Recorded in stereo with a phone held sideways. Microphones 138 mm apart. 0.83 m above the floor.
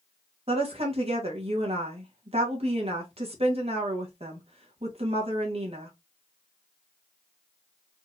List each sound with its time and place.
0.5 s a woman speaking: 50° right (ahead or behind), 1.1 m